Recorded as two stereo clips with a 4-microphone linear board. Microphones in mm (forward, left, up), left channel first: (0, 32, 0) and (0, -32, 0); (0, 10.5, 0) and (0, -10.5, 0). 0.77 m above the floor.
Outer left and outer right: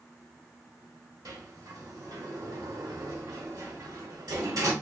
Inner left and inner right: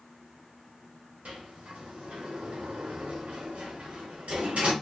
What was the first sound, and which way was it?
A sliding door, 80° right.